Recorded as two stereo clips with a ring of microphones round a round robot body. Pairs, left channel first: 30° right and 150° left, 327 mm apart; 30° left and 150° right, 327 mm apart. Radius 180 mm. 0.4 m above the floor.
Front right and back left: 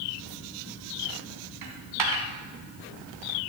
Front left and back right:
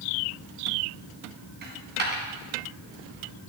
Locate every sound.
1.6 s a dropped coin: 150° left, 2.5 m